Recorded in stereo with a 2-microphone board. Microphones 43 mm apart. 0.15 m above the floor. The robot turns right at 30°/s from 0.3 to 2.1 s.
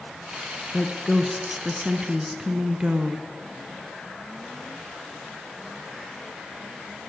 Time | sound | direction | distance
0.7 | a woman speaking | 160° left | 1.6 m